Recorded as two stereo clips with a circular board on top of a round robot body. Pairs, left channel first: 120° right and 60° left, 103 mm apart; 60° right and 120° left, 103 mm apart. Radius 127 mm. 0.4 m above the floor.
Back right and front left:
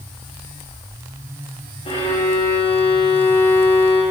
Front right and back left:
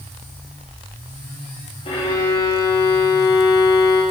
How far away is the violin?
About 8.5 m.